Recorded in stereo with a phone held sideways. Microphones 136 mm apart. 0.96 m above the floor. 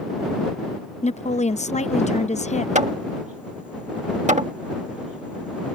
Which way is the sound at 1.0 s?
55° left (ahead or behind).